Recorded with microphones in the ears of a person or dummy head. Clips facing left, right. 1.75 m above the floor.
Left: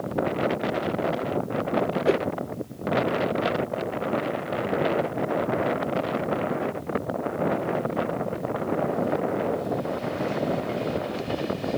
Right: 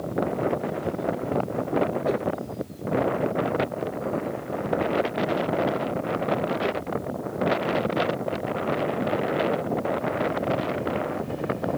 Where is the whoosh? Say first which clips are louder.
Left 3 dB; 25° left (ahead or behind).